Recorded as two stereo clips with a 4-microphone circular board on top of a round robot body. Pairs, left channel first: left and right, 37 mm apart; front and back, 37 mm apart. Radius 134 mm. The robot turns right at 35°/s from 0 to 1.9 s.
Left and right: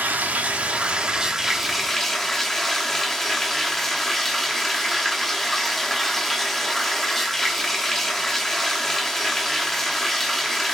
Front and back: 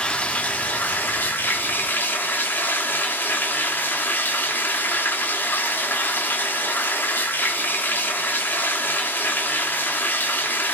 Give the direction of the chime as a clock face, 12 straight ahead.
I don't hear a chime.